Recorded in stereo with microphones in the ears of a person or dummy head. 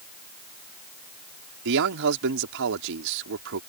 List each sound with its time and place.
1.6 s a man speaking: 70° right (ahead or behind)